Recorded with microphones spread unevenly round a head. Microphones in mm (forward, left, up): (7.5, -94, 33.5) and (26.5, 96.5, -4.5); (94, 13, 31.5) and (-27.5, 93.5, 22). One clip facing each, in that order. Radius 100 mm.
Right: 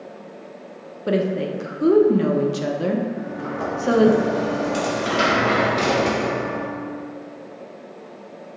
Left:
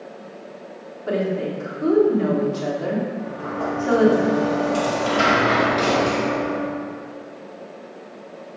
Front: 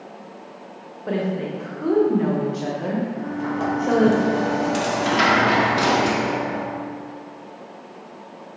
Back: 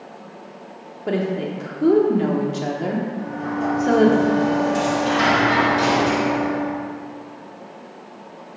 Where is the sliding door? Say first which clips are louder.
Even, even; 30° right, 1.1 m.